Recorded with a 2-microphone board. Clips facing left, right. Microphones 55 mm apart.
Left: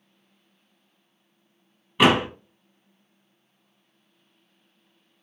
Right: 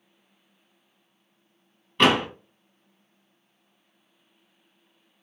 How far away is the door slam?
About 0.7 m.